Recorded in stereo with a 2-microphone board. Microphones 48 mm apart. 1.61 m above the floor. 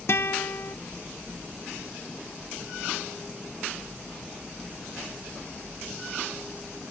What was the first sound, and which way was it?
A guitar, 60° left (ahead or behind).